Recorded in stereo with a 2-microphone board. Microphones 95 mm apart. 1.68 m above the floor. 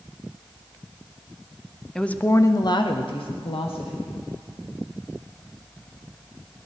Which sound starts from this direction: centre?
A woman speaking, at 1.9 s.